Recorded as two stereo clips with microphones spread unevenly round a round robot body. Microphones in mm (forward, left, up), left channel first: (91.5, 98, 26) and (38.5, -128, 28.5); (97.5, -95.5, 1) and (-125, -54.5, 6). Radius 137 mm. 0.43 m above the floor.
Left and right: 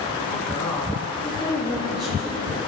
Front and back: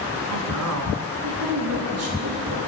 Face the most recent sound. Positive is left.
turn(degrees=170)